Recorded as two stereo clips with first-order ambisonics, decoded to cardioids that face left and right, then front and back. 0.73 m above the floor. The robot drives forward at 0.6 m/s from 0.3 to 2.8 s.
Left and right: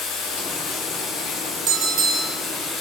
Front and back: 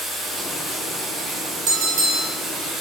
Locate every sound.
0.0 s running water: 100° left, 2 m; by 2.8 s 130° left, 2.5 m
1.7 s a bell: 135° right, 1.2 m; by 2.4 s 145° right, 1.6 m